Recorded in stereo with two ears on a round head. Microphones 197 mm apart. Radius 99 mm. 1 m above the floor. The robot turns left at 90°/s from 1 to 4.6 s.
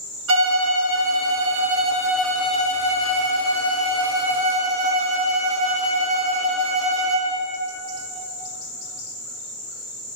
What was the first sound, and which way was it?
A violin, 75° right.